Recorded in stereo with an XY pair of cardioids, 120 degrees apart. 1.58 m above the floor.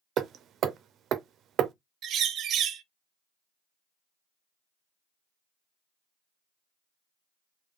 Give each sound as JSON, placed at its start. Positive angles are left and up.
{"t": 0.2, "sound": "hammering", "azimuth_deg": -60, "distance_m": 0.5}
{"t": 2.0, "sound": "a bird", "azimuth_deg": -60, "distance_m": 0.6}